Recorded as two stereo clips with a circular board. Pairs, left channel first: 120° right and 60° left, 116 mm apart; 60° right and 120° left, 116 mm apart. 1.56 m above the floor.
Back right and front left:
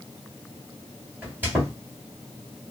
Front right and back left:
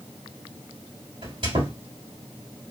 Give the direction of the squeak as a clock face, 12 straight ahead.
8 o'clock.